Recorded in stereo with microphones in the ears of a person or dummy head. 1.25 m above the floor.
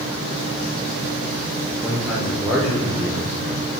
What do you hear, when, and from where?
1.8 s a man speaking: centre (ahead or behind), 0.6 m